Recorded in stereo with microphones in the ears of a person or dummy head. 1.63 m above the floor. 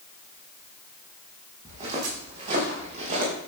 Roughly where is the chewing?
I don't hear chewing.